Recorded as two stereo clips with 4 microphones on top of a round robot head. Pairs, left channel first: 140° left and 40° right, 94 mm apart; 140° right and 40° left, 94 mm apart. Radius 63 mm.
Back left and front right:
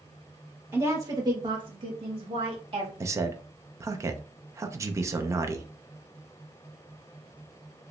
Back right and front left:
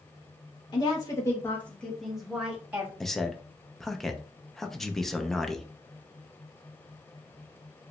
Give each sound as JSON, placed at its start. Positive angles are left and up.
{"t": 0.7, "sound": "a woman speaking", "azimuth_deg": -100, "distance_m": 1.4}
{"t": 3.0, "sound": "a man speaking", "azimuth_deg": -55, "distance_m": 0.6}